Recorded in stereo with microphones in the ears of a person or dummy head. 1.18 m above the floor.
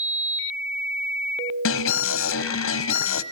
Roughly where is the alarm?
Left.